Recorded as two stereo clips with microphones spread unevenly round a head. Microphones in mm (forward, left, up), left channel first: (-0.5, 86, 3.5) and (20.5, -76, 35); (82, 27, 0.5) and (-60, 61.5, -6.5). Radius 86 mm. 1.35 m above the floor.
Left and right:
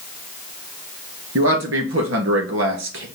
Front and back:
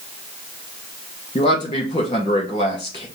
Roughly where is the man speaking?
Right.